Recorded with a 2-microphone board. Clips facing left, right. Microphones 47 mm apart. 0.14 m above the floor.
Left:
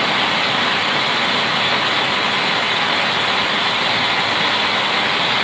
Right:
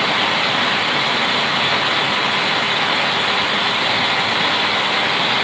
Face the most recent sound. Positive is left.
No sound to turn to.